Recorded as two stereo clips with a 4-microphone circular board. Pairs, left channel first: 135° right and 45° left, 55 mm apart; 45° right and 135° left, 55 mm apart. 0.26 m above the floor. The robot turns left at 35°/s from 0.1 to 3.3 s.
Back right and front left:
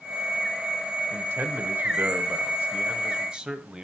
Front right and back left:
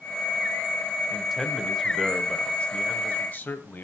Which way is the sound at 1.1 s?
60° left.